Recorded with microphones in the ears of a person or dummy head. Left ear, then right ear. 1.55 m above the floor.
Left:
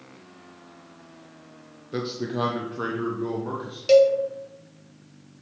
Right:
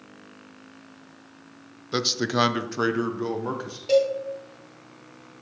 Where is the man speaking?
40° right (ahead or behind), 0.6 m; by 3.8 s 70° right (ahead or behind), 1.0 m.